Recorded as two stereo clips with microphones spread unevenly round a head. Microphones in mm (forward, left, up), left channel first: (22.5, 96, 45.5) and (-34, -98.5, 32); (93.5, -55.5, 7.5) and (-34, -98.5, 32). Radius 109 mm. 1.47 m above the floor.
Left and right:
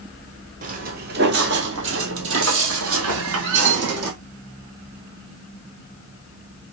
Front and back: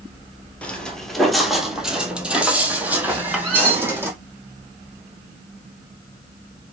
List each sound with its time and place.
0.6 s footsteps: 70° right, 1.8 m; by 4.1 s 95° right, 3 m
3.1 s a squeak: 75° right, 3.5 m